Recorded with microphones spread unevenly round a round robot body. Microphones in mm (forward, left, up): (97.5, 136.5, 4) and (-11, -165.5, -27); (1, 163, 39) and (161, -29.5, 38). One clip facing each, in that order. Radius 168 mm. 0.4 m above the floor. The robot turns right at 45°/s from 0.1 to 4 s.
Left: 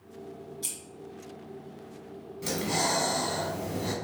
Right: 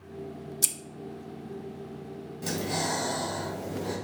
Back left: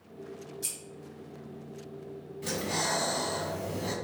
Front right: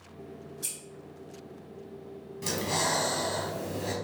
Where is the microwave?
No microwave in this recording.